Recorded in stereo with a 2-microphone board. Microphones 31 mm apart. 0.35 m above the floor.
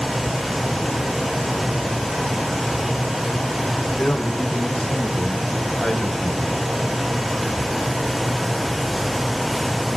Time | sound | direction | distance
4.0 | a man speaking | 60° left (ahead or behind) | 2.5 m